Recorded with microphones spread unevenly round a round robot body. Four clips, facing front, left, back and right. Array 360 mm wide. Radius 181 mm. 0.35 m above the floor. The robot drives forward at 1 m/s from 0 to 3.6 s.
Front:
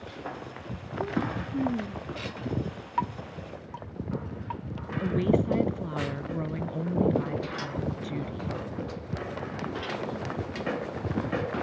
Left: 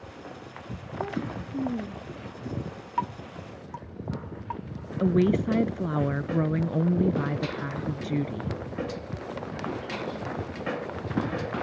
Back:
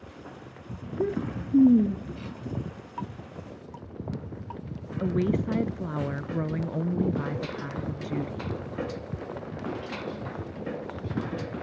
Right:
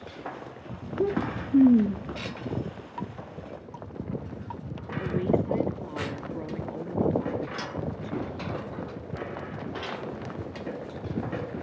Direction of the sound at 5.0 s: 100° left.